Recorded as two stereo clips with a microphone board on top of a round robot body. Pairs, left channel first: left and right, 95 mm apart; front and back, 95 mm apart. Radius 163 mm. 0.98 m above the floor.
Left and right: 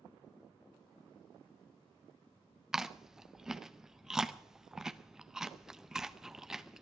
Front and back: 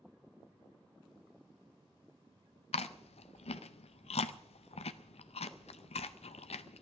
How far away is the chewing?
About 0.6 m.